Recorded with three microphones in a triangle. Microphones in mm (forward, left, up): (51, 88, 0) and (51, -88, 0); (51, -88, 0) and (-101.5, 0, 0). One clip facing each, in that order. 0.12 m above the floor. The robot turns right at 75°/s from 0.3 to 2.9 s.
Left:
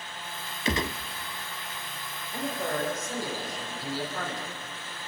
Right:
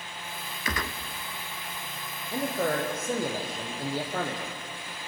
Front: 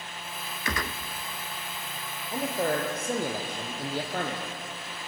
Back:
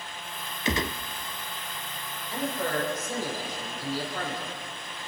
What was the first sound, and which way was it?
A gunshot, 110° left.